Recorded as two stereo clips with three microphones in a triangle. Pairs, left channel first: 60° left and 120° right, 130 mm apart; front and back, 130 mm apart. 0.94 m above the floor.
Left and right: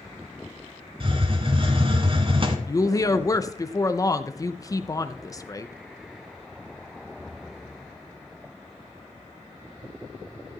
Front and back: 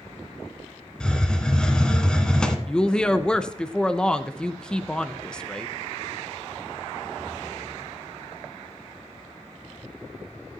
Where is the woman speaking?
75° left, 0.6 m.